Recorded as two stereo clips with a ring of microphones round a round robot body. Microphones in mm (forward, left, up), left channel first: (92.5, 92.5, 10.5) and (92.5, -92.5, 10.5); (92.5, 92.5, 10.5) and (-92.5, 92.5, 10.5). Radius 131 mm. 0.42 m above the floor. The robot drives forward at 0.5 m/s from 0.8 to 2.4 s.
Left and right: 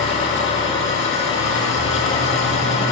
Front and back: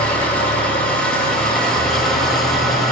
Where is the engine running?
85° left, 8.5 m; by 2.9 s 90° left, 8.5 m.